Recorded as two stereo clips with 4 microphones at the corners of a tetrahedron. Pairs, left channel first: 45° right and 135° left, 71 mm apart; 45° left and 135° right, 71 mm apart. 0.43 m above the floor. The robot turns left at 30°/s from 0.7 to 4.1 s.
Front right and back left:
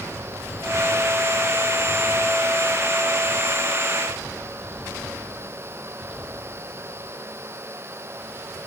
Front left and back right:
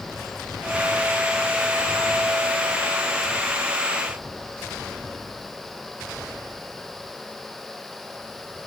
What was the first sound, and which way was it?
Only background noise.